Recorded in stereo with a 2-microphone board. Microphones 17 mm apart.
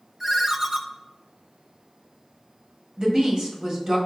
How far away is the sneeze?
No sneeze in this recording.